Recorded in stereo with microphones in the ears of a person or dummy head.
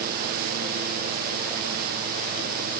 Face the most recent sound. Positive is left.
No sound to turn to.